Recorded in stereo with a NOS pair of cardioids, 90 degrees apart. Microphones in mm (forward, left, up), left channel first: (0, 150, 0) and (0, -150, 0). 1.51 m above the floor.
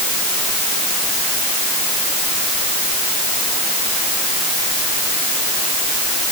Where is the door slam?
I don't hear a door slam.